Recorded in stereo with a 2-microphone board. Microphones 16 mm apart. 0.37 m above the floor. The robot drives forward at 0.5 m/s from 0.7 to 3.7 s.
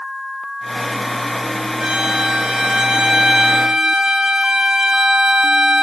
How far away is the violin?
About 2.0 m.